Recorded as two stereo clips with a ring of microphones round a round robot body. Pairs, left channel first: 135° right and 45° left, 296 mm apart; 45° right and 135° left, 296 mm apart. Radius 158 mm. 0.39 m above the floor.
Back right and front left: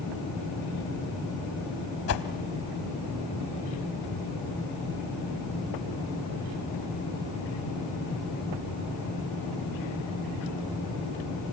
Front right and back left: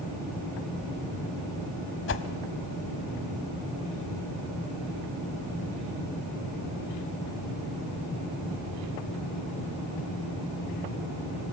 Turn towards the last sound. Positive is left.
turn(degrees=-95)